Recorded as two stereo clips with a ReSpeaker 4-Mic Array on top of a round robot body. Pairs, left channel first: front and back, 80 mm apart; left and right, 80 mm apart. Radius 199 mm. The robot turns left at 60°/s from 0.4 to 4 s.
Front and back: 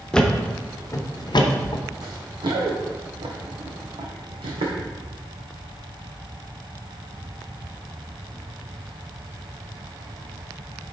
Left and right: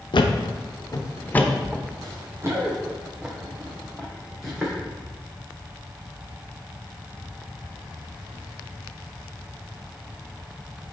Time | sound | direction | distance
0.1 | a thud | 80° left | 0.8 m
2.0 | running footsteps | 140° right | 1.6 m